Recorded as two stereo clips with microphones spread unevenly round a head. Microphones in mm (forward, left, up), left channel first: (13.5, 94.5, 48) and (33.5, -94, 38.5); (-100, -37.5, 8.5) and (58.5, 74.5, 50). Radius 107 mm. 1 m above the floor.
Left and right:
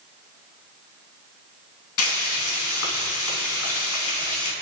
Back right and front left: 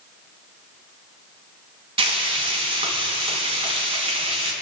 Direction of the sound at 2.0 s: 95° left.